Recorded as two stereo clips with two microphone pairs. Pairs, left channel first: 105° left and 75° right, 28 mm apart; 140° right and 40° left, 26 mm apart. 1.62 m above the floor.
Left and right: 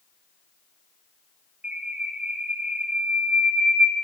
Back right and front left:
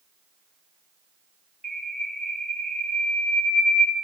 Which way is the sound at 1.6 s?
25° right.